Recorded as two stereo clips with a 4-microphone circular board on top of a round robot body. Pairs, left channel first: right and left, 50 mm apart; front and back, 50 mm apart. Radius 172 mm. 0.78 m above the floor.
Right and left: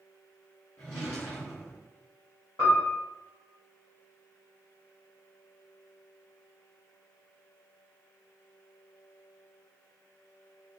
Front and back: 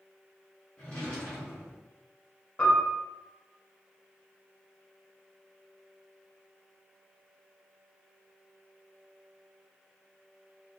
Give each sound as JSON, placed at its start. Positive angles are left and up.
{"t": 0.8, "sound": "a drawer", "azimuth_deg": -65, "distance_m": 0.5}
{"t": 2.6, "sound": "a piano", "azimuth_deg": -65, "distance_m": 0.6}